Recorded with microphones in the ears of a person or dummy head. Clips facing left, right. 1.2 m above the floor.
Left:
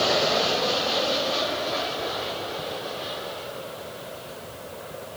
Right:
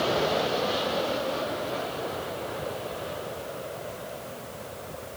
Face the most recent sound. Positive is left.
No sound to turn to.